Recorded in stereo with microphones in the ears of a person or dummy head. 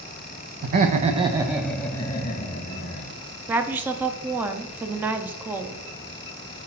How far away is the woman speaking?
About 0.5 m.